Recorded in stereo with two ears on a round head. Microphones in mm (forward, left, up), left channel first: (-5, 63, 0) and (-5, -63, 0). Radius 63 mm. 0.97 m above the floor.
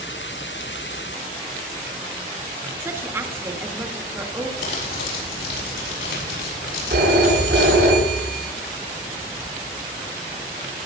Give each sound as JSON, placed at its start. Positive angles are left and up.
{"t": 2.8, "sound": "a woman speaking", "side_deg": -20, "distance_m": 2.5}
{"t": 4.6, "sound": "crumpling", "side_deg": 85, "distance_m": 6.5}
{"t": 6.9, "sound": "a phone ringing", "side_deg": -75, "distance_m": 9.0}